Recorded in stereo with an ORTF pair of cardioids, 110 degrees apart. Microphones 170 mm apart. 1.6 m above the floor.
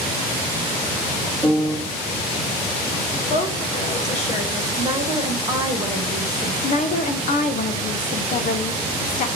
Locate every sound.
1.4 s a piano: 5° left, 2 m
3.3 s a woman speaking: 40° left, 1.6 m
4.8 s a woman speaking: 25° right, 1.7 m
6.6 s a woman speaking: 50° left, 1.1 m